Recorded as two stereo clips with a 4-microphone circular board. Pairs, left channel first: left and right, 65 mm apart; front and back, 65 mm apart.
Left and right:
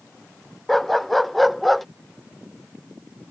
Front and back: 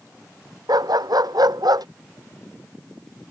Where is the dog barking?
Straight behind.